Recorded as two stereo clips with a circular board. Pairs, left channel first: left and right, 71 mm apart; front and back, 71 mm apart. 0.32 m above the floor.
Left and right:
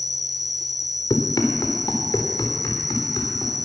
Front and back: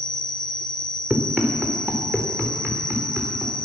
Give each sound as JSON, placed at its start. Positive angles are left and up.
{"t": 0.0, "sound": "an insect", "azimuth_deg": 85, "distance_m": 1.8}
{"t": 1.1, "sound": "running footsteps", "azimuth_deg": 115, "distance_m": 2.0}